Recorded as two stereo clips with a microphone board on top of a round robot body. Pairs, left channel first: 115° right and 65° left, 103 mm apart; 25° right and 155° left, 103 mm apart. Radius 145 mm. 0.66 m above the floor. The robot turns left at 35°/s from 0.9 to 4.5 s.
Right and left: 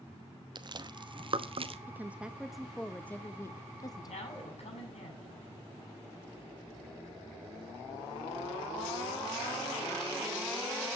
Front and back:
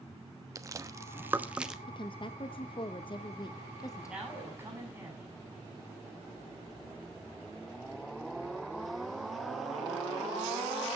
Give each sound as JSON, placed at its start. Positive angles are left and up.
{"t": 0.6, "sound": "chewing", "azimuth_deg": 100, "distance_m": 1.2}
{"t": 1.9, "sound": "a woman speaking", "azimuth_deg": 0, "distance_m": 0.9}
{"t": 4.1, "sound": "a man speaking", "azimuth_deg": -120, "distance_m": 7.5}